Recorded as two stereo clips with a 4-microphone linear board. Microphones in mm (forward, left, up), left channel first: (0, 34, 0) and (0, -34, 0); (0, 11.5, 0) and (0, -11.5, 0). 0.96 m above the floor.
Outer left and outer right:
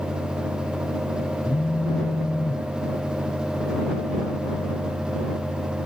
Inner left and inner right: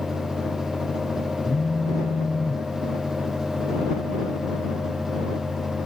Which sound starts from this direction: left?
A phone buzzing, at 1.4 s.